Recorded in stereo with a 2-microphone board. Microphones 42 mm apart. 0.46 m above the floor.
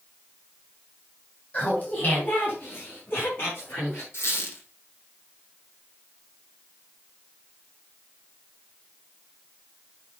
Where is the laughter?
40° left (ahead or behind), 4 m; by 4.0 s 65° left (ahead or behind), 6.5 m.